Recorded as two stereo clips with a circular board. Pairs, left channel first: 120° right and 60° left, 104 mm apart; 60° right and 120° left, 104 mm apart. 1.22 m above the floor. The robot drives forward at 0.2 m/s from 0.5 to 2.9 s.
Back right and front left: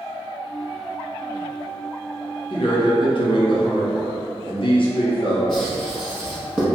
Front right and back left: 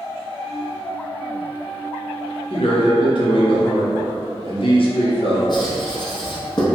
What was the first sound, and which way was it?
A man speaking, 80° right.